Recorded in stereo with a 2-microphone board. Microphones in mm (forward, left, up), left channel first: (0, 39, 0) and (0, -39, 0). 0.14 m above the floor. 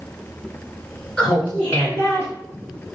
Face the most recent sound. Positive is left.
turn(degrees=35)  # may be behind; listen again after turning